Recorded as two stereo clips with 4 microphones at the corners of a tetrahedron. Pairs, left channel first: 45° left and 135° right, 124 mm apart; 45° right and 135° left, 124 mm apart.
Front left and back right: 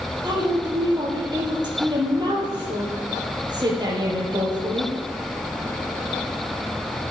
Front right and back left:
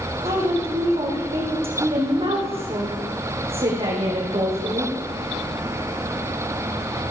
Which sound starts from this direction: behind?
A woman speaking, at 0.2 s.